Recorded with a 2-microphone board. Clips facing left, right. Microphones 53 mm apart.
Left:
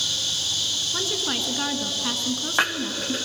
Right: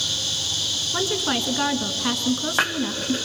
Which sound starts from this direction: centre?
A woman speaking, at 0.9 s.